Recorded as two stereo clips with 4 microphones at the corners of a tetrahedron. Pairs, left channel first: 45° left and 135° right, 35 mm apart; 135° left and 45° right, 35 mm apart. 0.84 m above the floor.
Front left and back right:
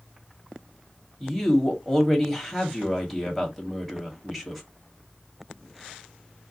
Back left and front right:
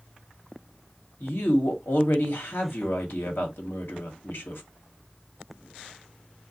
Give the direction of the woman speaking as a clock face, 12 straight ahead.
8 o'clock.